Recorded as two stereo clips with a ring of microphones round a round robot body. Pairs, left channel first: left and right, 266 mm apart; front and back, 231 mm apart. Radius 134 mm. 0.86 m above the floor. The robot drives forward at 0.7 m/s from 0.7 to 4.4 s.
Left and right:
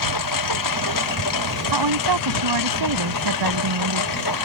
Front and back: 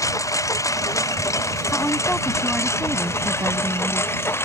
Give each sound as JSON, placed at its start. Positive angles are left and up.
{"t": 0.0, "sound": "a lawn mower", "azimuth_deg": 75}
{"t": 1.7, "sound": "a woman speaking", "azimuth_deg": -85}